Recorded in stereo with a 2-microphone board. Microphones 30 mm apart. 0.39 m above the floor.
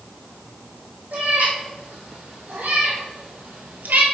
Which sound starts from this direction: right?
A cat meowing, at 1.1 s.